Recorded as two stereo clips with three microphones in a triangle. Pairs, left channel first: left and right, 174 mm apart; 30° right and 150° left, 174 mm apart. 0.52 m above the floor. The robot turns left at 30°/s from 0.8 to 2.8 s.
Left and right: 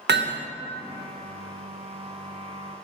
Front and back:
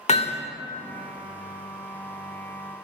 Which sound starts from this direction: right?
Hammering, at 0.1 s.